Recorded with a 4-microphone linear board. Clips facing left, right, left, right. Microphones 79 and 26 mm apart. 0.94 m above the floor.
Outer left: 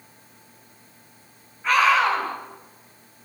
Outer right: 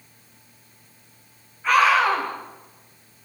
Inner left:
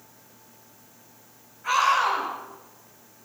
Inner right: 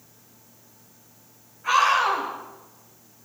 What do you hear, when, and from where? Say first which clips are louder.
1.6 s a scream: outer right 1 dB, inner right 2 dB; centre (ahead or behind), 6.5 m